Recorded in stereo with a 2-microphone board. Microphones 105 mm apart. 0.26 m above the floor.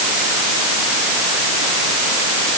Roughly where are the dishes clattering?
I don't hear dishes clattering.